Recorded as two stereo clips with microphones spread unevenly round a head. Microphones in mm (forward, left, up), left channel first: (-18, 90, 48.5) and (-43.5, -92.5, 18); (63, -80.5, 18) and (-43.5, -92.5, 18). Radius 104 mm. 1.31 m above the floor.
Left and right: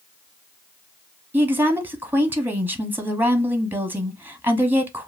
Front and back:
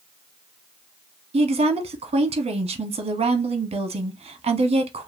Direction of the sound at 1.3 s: 170° right.